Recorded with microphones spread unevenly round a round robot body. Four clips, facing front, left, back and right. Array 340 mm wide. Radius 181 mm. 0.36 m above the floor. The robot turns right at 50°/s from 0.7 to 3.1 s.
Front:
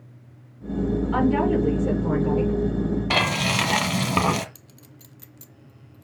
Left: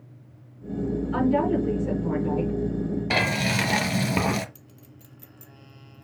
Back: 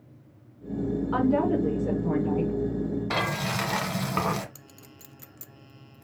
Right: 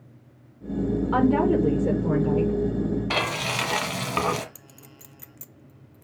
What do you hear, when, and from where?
1.1 s a woman speaking: 95° right, 5.5 m; by 2.5 s 25° right, 5.5 m
3.1 s frying: 40° left, 1.4 m
4.5 s a clink: 115° right, 0.6 m